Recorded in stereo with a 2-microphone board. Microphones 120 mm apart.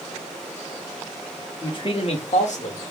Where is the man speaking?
35° left (ahead or behind), 1.3 m; by 2.8 s 75° left (ahead or behind), 1.2 m.